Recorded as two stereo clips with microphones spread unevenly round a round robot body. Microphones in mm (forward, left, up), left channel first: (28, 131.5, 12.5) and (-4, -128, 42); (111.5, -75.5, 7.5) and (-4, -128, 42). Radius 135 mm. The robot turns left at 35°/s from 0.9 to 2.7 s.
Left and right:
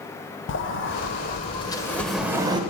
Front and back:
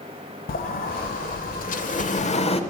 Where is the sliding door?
35° left, 0.6 m; by 2.6 s 25° right, 0.6 m.